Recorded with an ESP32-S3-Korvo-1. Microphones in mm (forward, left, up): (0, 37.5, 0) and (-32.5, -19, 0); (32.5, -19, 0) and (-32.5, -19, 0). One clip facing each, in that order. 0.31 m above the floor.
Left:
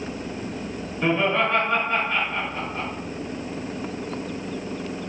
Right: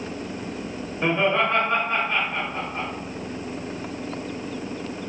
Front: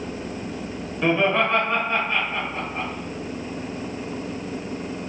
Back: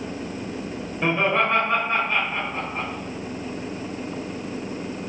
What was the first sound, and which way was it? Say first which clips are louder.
Laughter: even, front 1 dB; 155° right.